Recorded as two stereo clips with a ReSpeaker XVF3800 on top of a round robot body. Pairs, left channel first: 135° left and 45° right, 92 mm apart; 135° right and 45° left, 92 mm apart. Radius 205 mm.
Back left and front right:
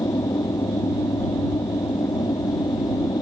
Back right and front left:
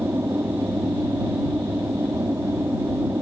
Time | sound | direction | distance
0.0 | an aircraft | 100° left | ?